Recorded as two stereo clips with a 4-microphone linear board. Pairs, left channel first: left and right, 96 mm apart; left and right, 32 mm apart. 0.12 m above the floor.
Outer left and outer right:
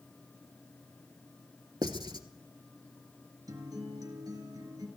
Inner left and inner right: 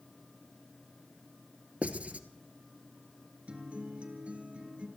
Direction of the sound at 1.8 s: 50° right (ahead or behind).